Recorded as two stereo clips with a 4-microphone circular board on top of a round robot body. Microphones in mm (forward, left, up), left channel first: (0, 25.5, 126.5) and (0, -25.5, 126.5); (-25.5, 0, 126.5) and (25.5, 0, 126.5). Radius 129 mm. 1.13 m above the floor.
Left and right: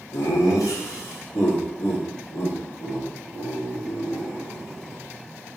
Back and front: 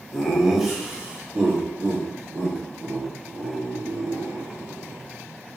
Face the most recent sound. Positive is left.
turn(degrees=40)